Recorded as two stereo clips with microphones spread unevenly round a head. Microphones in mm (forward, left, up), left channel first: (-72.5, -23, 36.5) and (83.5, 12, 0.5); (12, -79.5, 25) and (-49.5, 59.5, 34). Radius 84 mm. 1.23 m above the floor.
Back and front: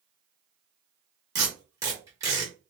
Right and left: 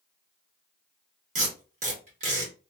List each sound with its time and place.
1.4 s tape being pulled: 90° left, 1.1 m